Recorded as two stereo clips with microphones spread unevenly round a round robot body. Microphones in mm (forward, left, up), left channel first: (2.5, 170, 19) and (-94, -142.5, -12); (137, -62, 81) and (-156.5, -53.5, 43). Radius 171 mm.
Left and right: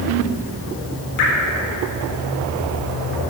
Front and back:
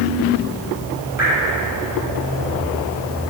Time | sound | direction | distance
1.2 | dripping | 95° left | 3 m